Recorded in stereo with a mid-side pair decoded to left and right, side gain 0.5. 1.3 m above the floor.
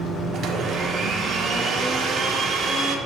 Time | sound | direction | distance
0.3 | a blender | 50° right | 1.3 m